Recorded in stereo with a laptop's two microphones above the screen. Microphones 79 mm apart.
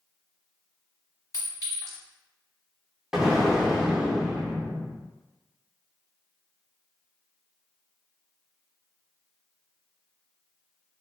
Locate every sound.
1.3 s a clink: 45° left (ahead or behind), 1.3 m
3.1 s an explosion: 5° right (ahead or behind), 0.7 m